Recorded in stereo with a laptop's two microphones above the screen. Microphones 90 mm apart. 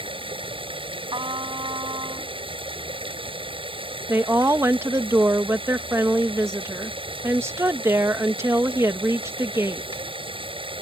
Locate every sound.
0.0 s running water: 75° right (ahead or behind)
1.1 s a trumpet: 60° right (ahead or behind)
4.1 s a woman speaking: 30° right (ahead or behind)